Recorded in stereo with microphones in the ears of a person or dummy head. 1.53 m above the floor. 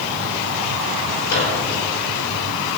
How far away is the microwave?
About 4 m.